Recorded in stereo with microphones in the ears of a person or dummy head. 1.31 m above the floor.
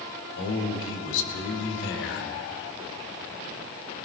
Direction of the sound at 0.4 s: 75° left (ahead or behind).